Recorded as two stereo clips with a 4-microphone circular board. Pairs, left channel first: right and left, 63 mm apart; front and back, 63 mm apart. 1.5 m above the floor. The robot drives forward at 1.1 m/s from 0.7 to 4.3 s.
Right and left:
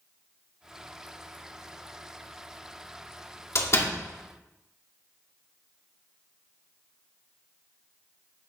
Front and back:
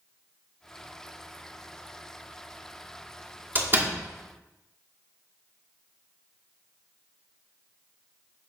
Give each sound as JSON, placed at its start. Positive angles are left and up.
{"t": 3.5, "sound": "a door slam", "azimuth_deg": -125, "distance_m": 2.0}